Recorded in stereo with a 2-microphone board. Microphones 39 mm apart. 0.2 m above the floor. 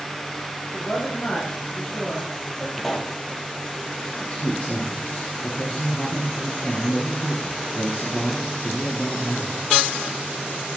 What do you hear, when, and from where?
0.7 s a woman speaking: 30° left (ahead or behind), 6 m
2.8 s a pop: 5° left (ahead or behind), 2.0 m
4.2 s a man speaking: 35° left (ahead or behind), 4 m